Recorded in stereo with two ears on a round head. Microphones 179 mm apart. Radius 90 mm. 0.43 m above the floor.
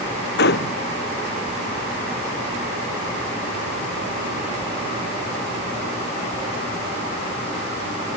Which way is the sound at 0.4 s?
55° left (ahead or behind).